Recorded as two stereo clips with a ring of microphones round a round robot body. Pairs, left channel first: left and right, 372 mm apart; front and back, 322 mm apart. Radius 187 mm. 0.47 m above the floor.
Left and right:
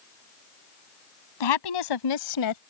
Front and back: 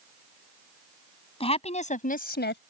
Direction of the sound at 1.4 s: 75° left.